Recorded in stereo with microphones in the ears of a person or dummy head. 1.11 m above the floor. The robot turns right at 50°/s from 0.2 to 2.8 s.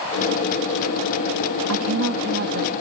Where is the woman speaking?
95° right, 1.5 m; by 2.7 s 45° right, 1.5 m.